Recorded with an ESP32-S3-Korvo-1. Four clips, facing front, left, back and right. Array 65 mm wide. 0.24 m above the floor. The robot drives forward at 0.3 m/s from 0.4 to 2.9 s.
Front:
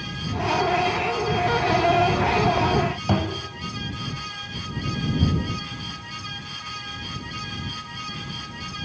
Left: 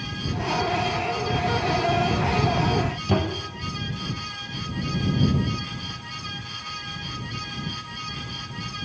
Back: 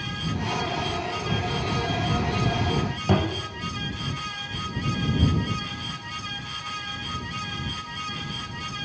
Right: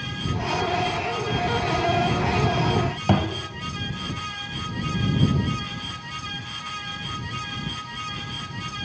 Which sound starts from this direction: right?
A thud, at 3.1 s.